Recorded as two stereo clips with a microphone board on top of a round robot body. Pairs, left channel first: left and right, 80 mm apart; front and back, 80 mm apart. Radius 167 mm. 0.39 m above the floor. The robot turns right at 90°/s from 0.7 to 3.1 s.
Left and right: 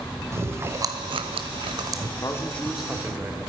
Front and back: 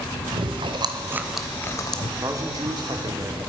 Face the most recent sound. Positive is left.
turn(degrees=-150)